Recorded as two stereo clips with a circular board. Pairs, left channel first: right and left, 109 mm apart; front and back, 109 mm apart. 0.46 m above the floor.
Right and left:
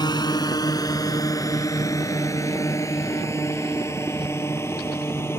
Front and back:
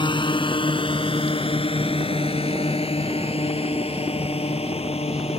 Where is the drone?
40° right; by 5.4 s 20° right.